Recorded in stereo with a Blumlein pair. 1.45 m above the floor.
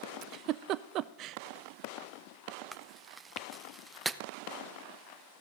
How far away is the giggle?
About 0.5 m.